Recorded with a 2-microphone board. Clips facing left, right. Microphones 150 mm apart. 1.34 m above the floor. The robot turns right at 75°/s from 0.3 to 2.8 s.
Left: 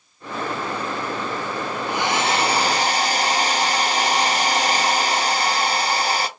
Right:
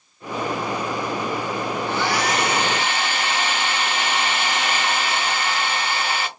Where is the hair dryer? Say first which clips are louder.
Left 2 dB; 15° left, 0.5 m; by 6.3 s 90° left, 0.5 m.